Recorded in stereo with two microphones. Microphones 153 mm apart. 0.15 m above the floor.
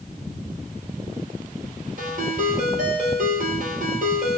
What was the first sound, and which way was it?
A ringtone, 65° right (ahead or behind).